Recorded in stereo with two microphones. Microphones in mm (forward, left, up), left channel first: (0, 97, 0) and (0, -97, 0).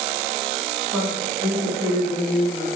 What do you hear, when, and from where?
0.9 s a woman speaking: 5° left (ahead or behind), 1.7 m; by 2.7 s 35° left (ahead or behind), 1.8 m